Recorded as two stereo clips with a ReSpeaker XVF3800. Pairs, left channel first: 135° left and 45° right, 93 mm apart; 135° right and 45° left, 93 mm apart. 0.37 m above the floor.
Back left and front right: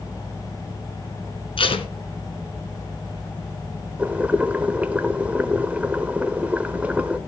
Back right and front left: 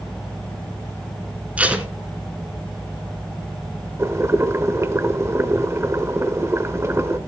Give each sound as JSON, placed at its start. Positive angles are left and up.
{"t": 1.6, "sound": "tape being pulled", "azimuth_deg": 120, "distance_m": 1.6}
{"t": 4.0, "sound": "boiling", "azimuth_deg": 20, "distance_m": 1.0}